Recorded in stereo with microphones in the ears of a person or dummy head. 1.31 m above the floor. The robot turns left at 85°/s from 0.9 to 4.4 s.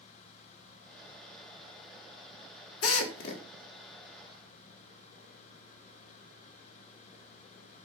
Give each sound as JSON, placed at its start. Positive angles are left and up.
{"t": 2.8, "sound": "a drill", "side_deg": 85, "distance_m": 3.5}